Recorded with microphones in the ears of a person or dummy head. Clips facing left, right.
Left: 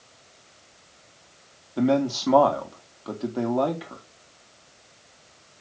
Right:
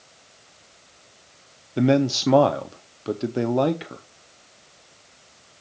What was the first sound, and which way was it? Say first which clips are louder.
A man speaking: right 3 dB; 25° right (ahead or behind).